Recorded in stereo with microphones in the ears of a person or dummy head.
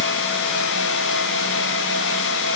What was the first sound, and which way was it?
Only background noise.